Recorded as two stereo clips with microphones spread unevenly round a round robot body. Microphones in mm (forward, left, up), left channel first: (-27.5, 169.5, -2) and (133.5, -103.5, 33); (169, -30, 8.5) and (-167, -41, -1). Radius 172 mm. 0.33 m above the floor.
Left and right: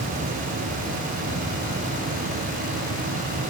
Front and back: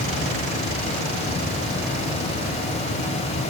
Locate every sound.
Only background noise.